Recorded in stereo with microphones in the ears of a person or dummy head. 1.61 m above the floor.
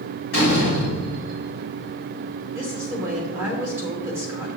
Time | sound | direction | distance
0.3 | a door slam | 60° left (ahead or behind) | 4 m
2.5 | a woman speaking | 15° right (ahead or behind) | 2.5 m